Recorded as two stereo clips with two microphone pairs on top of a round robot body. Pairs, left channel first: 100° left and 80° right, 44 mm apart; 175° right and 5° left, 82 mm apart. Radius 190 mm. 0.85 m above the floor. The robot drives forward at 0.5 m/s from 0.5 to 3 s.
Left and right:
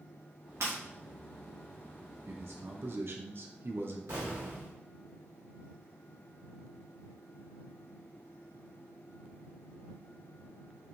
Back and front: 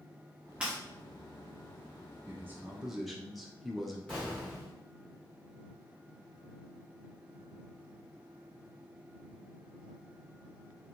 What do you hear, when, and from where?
0.6 s breaking glass: 70° right, 0.8 m; by 0.8 s 75° right, 0.8 m
2.3 s a man speaking: 55° right, 0.7 m; by 4.0 s 95° right, 0.7 m
4.1 s an explosion: 95° right, 0.7 m